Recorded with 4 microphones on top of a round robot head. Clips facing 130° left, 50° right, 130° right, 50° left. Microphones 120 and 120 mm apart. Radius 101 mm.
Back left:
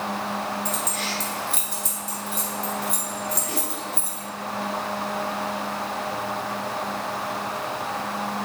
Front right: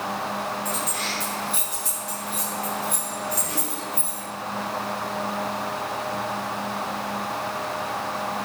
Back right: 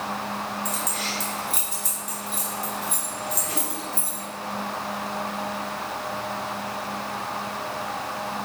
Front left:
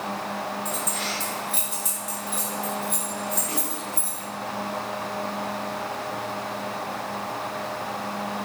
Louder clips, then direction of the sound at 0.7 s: Even, even; 175° left.